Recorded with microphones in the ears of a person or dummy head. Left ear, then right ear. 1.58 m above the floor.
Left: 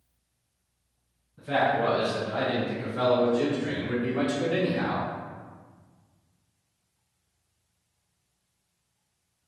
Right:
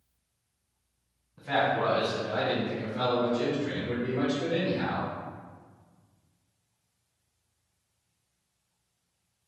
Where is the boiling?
No boiling in this recording.